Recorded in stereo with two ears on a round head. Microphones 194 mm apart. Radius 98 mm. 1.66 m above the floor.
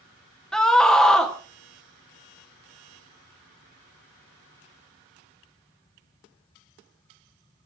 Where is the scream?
5° left (ahead or behind), 1.4 m.